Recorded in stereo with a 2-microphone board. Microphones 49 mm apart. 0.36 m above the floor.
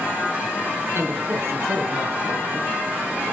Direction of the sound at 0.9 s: 55° right (ahead or behind).